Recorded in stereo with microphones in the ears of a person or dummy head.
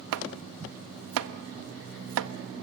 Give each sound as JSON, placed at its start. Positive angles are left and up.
{"t": 0.1, "sound": "chopping", "side_deg": -65, "distance_m": 0.8}